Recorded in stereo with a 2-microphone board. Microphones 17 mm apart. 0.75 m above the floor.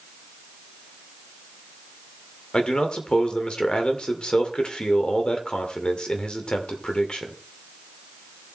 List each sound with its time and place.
2.5 s a man speaking: 70° left (ahead or behind), 2.5 m